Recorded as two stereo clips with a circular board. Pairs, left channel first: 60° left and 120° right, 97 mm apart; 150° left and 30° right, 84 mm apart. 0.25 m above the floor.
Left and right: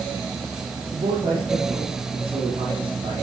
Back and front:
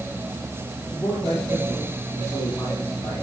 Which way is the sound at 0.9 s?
145° right.